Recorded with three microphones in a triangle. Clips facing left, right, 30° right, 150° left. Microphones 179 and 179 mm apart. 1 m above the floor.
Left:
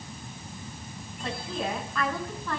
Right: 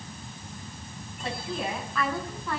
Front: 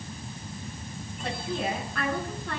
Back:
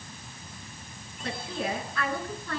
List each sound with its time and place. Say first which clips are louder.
1.2 s a woman speaking: even, front 2 dB; 5° right, 9.5 m